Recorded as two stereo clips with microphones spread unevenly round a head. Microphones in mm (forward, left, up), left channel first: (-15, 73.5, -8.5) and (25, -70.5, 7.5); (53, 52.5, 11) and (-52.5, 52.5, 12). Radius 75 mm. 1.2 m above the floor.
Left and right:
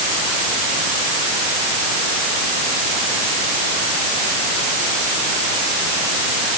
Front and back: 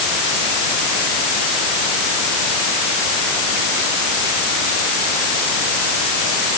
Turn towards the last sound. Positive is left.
No sound to turn to.